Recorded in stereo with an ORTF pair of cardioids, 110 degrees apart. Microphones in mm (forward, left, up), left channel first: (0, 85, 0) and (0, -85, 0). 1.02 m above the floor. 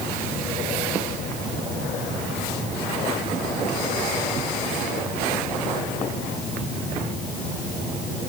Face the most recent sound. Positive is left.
No sound to turn to.